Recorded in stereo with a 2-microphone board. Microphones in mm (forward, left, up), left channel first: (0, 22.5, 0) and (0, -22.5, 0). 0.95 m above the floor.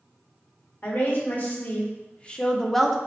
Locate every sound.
0.8 s a woman speaking: 50° left (ahead or behind), 1.4 m; by 3.0 s 5° right (ahead or behind), 0.6 m